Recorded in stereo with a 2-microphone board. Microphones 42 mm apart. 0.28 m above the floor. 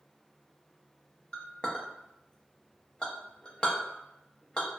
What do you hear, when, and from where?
1.3 s a clink: 25° left (ahead or behind), 0.5 m